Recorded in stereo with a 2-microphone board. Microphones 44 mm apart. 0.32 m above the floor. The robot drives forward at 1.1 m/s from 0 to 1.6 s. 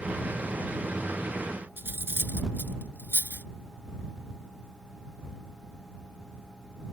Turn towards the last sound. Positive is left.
turn(degrees=-55)  # may be behind; listen again after turning